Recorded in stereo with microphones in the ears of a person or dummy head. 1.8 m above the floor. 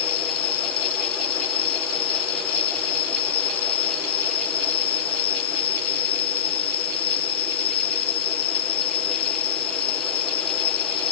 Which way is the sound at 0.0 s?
30° left (ahead or behind).